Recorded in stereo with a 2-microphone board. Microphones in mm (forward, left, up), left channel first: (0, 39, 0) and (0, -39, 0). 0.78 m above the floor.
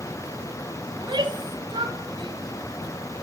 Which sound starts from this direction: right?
A shout, at 0.9 s.